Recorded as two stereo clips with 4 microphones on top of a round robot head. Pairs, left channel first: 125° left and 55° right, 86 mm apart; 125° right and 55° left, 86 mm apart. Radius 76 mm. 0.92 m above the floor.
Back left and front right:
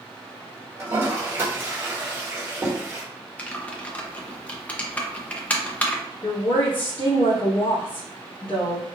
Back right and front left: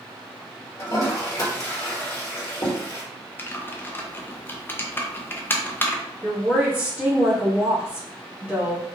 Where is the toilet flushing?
105° right, 1.1 m.